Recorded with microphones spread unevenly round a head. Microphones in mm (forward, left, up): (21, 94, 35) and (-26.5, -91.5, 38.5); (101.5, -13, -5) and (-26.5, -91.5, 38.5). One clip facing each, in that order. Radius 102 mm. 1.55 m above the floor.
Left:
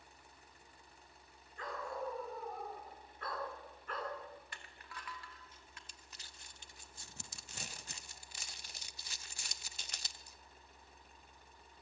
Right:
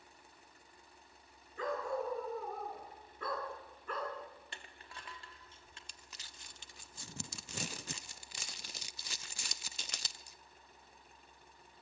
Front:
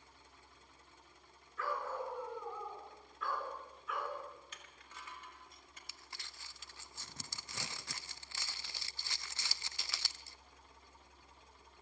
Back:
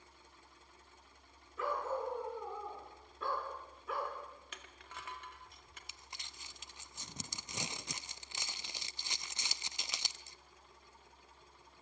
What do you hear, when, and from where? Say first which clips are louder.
1.6 s a dog barking: right 6 dB, back 3 dB; 85° right, 6.5 m; by 4.2 s 105° right, 5 m
4.5 s crushing: even, back 4 dB; 170° right, 1.9 m
5.9 s crumpling: right 1 dB, even; 75° right, 0.7 m